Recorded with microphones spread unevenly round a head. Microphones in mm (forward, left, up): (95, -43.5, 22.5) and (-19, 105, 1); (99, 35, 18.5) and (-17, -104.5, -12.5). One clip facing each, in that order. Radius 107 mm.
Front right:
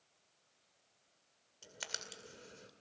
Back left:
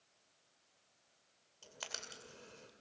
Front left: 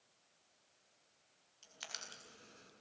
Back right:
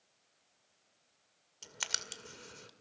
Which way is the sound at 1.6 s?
125° right.